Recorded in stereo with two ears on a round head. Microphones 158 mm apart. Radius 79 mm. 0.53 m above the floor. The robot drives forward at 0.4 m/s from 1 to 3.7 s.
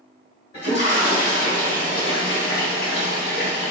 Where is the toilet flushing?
40° left (ahead or behind), 1.4 m; by 3.7 s 65° left (ahead or behind), 1.0 m.